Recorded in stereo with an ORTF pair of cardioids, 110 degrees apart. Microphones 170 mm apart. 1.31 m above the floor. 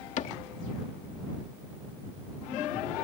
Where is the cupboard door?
45° left.